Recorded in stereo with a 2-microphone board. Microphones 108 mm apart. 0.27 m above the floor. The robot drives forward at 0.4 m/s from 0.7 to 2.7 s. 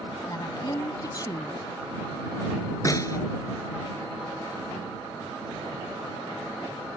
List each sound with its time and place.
0.3 s a woman speaking: 40° left (ahead or behind); by 1.6 s 35° left (ahead or behind)
2.9 s a snare drum: 30° left (ahead or behind)